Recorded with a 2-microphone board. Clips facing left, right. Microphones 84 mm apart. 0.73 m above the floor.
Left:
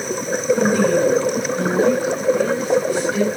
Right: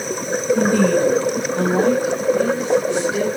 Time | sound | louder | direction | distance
0.6 | a woman speaking | right 1 dB | 55° right (ahead or behind) | 5.5 m